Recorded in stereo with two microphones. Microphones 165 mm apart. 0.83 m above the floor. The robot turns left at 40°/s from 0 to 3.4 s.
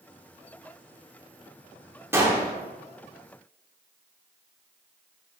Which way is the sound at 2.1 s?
15° right (ahead or behind).